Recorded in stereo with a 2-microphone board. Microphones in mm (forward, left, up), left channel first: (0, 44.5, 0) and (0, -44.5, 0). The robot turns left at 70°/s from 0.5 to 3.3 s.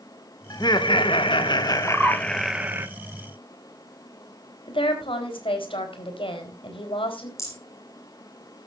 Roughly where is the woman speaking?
Left.